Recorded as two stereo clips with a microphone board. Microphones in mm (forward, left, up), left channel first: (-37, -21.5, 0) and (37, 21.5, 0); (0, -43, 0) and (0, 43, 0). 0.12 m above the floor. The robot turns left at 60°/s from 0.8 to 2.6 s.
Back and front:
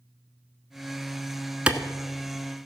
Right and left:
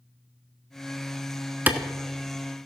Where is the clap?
80° left, 0.9 m; by 1.8 s 75° left, 0.9 m.